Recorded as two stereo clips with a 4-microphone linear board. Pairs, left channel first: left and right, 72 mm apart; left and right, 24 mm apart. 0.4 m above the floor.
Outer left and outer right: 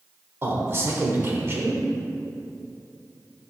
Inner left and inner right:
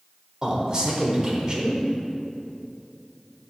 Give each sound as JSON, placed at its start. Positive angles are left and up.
{"t": 0.4, "sound": "a man speaking", "side_deg": -35, "distance_m": 1.0}